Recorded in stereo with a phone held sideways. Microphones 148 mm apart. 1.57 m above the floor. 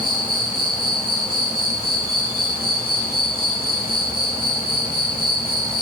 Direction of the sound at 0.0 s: 85° right.